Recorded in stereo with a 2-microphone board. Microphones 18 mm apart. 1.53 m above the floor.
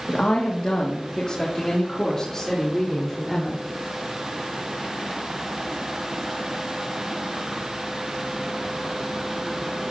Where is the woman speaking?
65° left (ahead or behind), 2.5 m; by 3.6 s 10° left (ahead or behind), 5 m.